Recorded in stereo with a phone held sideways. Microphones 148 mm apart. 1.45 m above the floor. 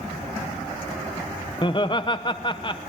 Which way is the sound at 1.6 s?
35° left (ahead or behind).